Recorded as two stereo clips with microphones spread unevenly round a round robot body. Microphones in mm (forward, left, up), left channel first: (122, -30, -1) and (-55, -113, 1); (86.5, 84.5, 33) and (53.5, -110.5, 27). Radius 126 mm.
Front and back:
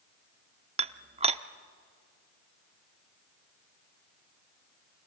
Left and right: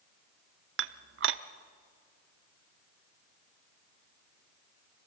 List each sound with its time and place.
0.8 s dishes clattering: 95° right, 0.7 m